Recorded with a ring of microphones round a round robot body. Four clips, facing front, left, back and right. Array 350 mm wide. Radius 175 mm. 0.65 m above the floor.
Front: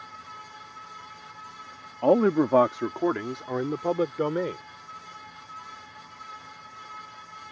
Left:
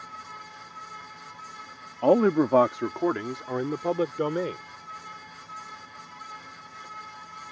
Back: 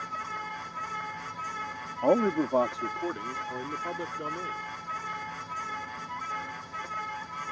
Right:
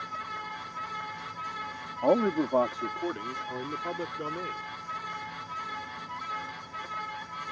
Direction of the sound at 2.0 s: 55° left.